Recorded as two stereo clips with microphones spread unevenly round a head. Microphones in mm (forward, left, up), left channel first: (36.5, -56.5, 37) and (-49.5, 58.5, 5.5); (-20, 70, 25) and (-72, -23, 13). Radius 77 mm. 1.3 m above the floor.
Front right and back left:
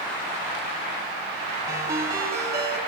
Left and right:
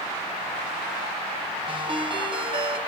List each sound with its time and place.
1.7 s a ringtone: 160° right, 4.5 m